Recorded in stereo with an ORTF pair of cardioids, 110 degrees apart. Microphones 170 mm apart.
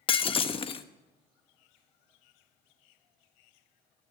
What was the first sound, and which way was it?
Breaking glass, 35° left.